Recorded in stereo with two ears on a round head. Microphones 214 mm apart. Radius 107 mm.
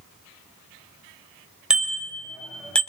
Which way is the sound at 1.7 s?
5° right (ahead or behind).